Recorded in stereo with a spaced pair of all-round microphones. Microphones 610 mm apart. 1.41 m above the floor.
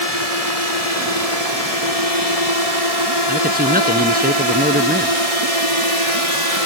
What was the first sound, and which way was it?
A drone, 75° left (ahead or behind).